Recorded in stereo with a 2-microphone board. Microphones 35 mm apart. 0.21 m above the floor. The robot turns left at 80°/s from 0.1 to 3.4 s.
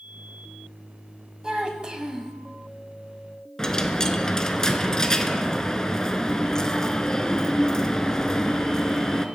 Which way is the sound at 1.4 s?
20° right (ahead or behind).